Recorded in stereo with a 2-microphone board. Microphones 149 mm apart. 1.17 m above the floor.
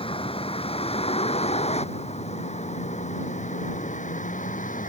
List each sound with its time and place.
0.0 s a vehicle: 35° left (ahead or behind); by 4.9 s 60° left (ahead or behind)